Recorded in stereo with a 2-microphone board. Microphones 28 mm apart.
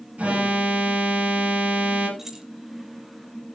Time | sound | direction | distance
0.2 | an alarm | 50° right (ahead or behind) | 7 m
2.2 | keys jangling | 15° right (ahead or behind) | 2.5 m